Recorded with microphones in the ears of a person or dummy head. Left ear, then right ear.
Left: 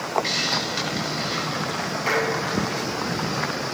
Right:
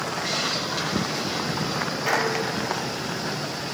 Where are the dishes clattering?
10° left (ahead or behind), 6.5 m.